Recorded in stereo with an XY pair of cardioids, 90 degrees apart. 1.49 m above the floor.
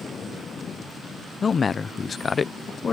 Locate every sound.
1.4 s a man speaking: 45° left